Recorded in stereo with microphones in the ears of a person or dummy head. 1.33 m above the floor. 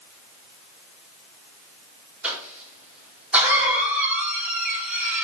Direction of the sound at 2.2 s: 5° right (ahead or behind).